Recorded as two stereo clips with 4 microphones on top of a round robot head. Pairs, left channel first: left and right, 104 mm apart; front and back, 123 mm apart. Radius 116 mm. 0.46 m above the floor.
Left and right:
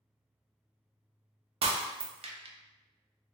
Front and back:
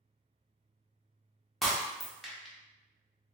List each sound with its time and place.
1.6 s breaking glass: 90° right, 0.5 m